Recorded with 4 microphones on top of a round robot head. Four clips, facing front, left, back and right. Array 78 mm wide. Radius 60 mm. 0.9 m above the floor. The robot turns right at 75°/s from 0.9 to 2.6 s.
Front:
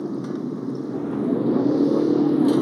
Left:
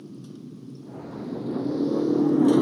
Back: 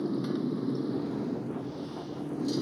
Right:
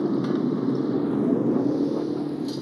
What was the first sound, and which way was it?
A motorcycle, 75° right.